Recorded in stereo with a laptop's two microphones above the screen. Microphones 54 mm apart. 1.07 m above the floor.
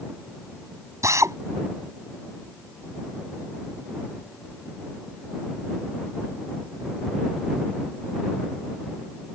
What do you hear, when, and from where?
1.0 s a drill: 70° right (ahead or behind)